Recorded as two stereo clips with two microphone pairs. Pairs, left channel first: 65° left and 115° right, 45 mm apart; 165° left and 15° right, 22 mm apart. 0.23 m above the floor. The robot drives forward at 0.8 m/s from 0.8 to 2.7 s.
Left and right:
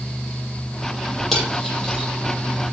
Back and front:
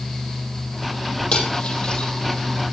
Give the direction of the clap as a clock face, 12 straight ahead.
No clap in this recording.